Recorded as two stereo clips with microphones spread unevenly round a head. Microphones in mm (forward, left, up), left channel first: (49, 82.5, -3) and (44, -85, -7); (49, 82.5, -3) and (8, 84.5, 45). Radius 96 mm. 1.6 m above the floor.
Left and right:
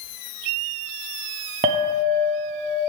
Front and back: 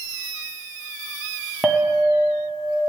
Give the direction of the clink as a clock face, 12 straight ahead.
5 o'clock.